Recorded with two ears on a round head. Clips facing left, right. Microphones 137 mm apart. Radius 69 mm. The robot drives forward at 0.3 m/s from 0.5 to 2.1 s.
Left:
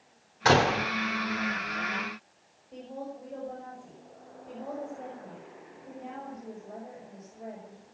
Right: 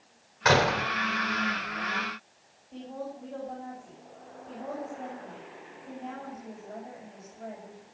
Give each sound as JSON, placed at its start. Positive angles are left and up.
{"t": 0.5, "sound": "a door slam", "side_deg": 35, "distance_m": 2.5}
{"t": 2.7, "sound": "a woman speaking", "side_deg": 20, "distance_m": 7.0}